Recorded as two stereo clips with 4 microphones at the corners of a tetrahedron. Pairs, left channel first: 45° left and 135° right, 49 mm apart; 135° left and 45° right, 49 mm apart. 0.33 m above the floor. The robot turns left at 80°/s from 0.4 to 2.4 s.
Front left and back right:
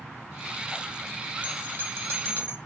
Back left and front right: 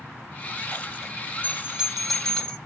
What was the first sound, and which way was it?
A bell, 80° right.